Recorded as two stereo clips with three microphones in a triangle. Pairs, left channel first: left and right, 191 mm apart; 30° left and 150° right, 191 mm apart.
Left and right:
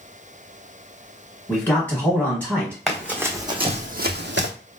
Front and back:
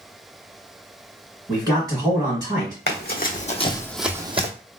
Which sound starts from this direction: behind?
A man speaking, at 1.5 s.